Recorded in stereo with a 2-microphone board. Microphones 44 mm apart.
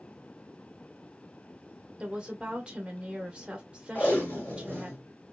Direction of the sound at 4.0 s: 40° left (ahead or behind).